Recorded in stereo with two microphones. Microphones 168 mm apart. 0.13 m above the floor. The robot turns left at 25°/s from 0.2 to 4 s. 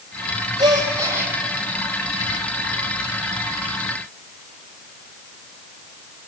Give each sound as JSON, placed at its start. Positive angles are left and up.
{"t": 0.6, "sound": "a gasp", "side_deg": -30, "distance_m": 4.5}